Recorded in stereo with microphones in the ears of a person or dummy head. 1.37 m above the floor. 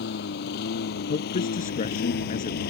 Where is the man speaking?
40° left (ahead or behind).